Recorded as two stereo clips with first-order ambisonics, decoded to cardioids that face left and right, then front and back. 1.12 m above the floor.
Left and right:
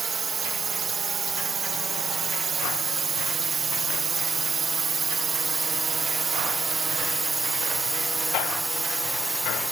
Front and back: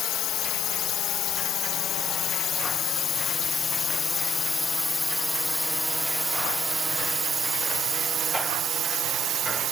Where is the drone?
25° right; by 9.7 s 170° right.